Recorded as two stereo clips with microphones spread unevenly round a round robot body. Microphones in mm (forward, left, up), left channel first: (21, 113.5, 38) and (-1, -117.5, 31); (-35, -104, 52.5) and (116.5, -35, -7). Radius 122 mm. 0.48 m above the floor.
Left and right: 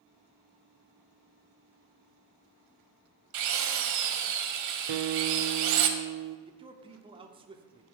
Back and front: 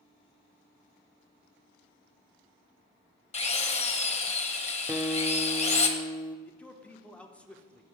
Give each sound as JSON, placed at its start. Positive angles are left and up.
{"t": 3.3, "sound": "a drill", "azimuth_deg": -100, "distance_m": 1.2}
{"t": 4.9, "sound": "a guitar", "azimuth_deg": -60, "distance_m": 0.5}
{"t": 6.5, "sound": "a man speaking", "azimuth_deg": -45, "distance_m": 1.0}